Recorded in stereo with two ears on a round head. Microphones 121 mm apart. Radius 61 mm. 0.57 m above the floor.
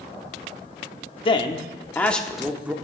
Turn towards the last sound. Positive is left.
turn(degrees=-10)  # may be behind; listen again after turning